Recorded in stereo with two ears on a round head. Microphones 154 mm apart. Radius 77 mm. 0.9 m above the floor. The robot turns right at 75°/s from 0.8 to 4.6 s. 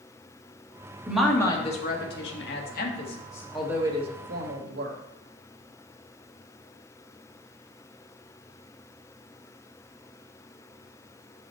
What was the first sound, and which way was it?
A woman speaking, 10° right (ahead or behind).